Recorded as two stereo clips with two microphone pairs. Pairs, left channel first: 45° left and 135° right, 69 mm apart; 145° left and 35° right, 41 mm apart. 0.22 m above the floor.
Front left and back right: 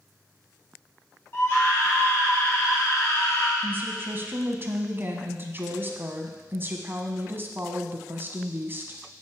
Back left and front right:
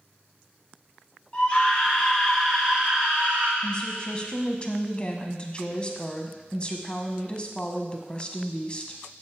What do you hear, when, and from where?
1.3 s a scream: 95° left, 1.9 m; by 3.5 s 10° left, 2 m
3.6 s a woman speaking: 170° right, 1.2 m